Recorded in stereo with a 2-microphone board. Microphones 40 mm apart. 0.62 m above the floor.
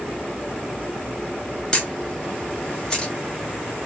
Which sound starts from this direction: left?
A camera shutter, at 1.7 s.